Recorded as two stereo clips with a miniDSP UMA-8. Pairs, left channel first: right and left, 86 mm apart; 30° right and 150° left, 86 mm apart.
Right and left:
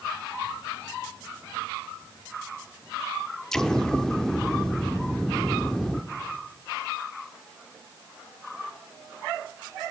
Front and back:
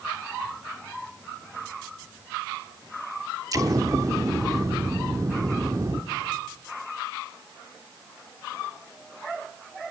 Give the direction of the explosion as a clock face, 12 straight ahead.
6 o'clock.